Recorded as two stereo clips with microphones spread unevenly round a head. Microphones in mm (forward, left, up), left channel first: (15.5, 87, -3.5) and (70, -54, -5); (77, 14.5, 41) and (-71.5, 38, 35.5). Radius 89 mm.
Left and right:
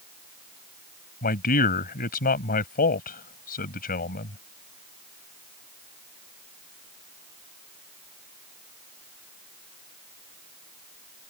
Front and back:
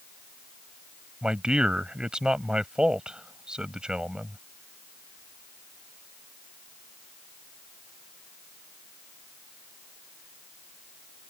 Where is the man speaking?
85° left.